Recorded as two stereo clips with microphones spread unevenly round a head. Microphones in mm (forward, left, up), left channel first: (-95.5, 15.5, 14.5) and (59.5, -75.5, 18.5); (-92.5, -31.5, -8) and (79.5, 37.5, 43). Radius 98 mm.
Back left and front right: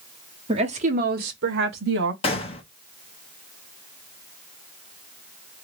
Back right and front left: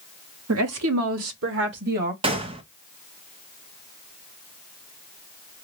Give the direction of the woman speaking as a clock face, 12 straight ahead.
11 o'clock.